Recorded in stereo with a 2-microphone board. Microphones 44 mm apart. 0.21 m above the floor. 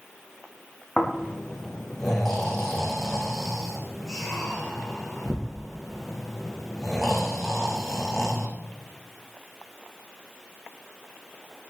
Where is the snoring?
5° left (ahead or behind), 4.5 m.